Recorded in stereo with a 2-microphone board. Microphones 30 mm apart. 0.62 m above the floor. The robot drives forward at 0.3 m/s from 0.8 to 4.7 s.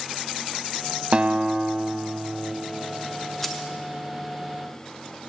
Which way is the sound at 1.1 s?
35° right (ahead or behind).